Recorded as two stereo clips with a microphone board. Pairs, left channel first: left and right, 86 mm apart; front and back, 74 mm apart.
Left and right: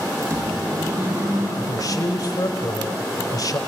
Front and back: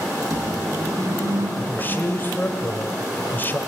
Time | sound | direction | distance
0.2 | a microwave | 140° right | 5 m
1.6 | a man speaking | 60° left | 1.6 m